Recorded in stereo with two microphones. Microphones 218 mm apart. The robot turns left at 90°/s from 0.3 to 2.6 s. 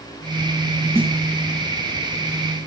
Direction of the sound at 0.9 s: 10° right (ahead or behind).